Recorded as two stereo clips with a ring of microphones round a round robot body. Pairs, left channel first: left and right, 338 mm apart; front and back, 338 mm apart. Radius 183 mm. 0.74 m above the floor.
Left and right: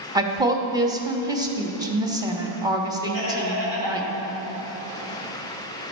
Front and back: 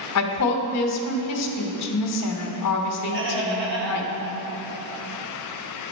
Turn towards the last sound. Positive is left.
turn(degrees=-145)